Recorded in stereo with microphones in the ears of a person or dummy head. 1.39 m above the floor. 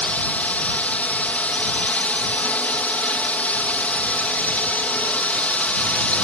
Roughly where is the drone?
Centre.